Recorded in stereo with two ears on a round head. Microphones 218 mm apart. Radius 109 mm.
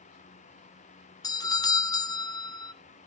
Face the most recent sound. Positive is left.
turn(degrees=15)  # may be behind; listen again after turning